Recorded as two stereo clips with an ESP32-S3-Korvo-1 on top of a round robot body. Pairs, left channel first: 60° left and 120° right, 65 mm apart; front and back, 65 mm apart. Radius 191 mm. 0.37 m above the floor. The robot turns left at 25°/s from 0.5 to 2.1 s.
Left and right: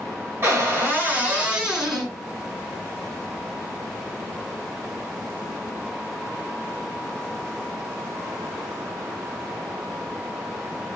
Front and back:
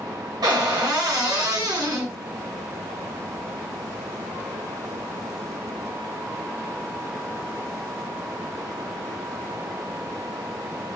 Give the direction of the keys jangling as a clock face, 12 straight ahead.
No keys jangling in this recording.